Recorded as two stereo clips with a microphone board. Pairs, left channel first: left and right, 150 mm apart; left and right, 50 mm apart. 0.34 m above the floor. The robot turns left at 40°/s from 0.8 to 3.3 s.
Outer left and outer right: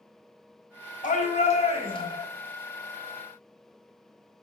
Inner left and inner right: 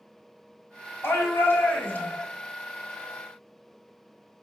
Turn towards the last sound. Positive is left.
turn(degrees=-15)